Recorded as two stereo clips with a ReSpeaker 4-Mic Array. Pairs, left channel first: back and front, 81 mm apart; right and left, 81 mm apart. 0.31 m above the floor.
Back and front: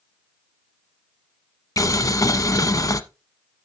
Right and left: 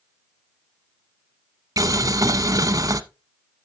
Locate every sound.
1.8 s boiling: 135° left, 0.6 m